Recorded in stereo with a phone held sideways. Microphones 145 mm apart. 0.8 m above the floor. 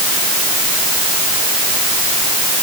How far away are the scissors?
No scissors in this recording.